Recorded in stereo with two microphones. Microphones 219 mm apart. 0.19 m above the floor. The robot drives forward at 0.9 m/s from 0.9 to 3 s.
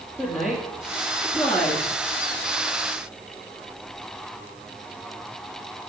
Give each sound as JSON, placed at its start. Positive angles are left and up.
{"t": 0.2, "sound": "a woman speaking", "side_deg": 10, "distance_m": 3.0}